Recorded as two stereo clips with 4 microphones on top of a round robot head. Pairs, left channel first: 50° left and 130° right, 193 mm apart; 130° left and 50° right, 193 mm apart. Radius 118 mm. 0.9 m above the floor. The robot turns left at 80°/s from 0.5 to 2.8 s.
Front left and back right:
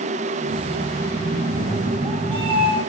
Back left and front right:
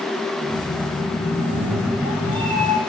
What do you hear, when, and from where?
1.3 s a cat meowing: 5° right, 3 m; by 2.8 s 120° right, 3 m